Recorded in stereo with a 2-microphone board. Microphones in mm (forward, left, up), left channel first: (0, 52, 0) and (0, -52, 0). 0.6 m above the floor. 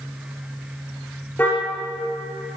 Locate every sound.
1.4 s a car horn: 20° left (ahead or behind), 6 m